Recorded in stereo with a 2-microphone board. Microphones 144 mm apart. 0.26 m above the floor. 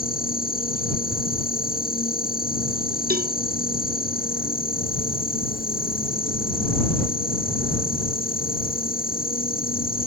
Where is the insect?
85° left.